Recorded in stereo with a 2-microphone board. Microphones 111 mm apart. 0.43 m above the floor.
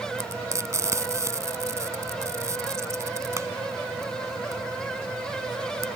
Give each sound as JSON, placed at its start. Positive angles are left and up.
{"t": 0.2, "sound": "frying", "side_deg": -25}